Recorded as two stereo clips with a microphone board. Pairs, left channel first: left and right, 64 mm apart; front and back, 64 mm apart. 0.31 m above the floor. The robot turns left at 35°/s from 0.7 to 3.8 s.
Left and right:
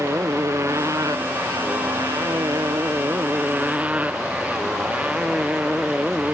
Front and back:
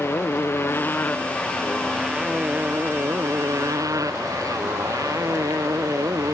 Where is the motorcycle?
50° right; by 6.3 s 160° right.